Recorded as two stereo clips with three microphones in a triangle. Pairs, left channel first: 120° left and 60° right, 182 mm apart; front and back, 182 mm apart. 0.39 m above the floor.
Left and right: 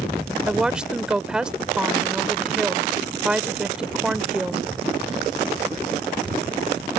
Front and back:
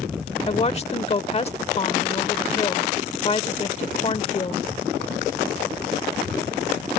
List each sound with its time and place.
0.5 s a woman speaking: 25° left